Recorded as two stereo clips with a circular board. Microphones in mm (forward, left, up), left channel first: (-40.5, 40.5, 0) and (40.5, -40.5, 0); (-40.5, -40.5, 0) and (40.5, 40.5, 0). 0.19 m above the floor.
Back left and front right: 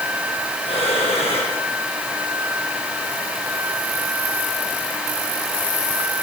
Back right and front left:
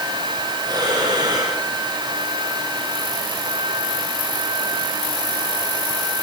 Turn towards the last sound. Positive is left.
turn(degrees=100)